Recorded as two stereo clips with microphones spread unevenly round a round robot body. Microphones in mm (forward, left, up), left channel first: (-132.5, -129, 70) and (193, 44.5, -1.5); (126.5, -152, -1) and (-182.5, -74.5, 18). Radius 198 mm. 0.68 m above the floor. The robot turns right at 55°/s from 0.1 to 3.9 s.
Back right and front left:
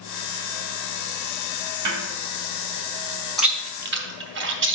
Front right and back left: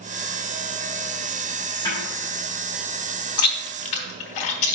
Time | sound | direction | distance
1.9 | a snare drum | 65° left | 1.8 m
3.4 | chewing | 60° right | 1.2 m